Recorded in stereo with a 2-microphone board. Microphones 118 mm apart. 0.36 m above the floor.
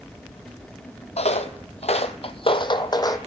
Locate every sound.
1.2 s footsteps: 65° left (ahead or behind), 0.8 m; by 3.2 s 30° left (ahead or behind), 1.0 m